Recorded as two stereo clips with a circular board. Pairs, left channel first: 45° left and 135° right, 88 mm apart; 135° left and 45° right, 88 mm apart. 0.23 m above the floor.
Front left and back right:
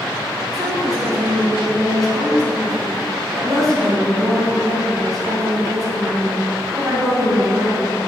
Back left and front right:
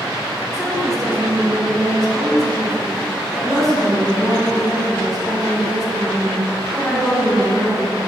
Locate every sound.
0.5 s a woman speaking: 135° right, 2.0 m